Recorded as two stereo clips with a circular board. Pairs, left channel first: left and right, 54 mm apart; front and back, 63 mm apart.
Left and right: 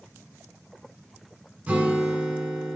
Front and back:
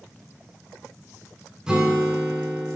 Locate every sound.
1.7 s a guitar: 115° right, 0.7 m